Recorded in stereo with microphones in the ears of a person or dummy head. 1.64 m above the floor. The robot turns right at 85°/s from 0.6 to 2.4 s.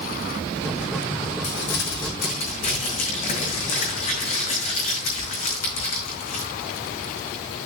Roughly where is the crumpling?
Ahead left.